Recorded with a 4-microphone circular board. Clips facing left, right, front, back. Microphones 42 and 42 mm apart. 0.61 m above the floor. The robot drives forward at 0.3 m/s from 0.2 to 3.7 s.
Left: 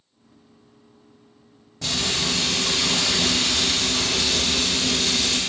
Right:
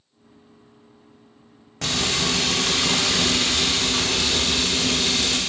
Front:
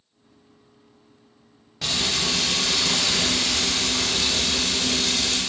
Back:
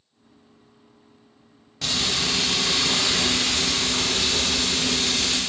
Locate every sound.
1.8 s frying: 85° right, 0.6 m; by 5.4 s 130° right, 0.8 m